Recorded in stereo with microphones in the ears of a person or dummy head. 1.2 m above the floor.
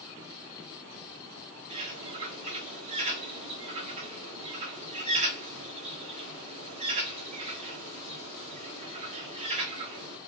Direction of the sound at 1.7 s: 35° right (ahead or behind).